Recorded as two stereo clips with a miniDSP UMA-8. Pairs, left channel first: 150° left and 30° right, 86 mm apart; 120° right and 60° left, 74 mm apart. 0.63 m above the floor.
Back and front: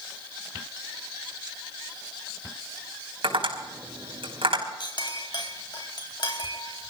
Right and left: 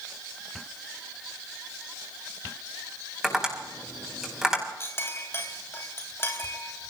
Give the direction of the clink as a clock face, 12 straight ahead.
6 o'clock.